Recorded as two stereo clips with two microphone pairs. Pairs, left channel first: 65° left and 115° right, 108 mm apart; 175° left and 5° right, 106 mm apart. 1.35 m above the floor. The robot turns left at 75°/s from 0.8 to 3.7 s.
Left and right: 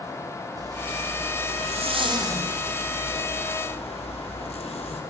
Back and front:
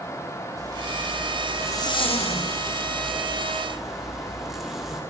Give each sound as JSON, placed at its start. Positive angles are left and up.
{"t": 0.6, "sound": "a zipper", "azimuth_deg": -60, "distance_m": 3.0}